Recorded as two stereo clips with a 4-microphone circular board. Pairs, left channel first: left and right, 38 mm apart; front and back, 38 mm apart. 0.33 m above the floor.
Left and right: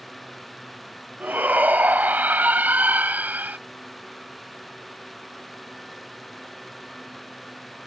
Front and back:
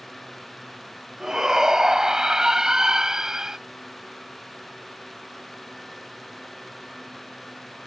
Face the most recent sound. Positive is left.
turn(degrees=-110)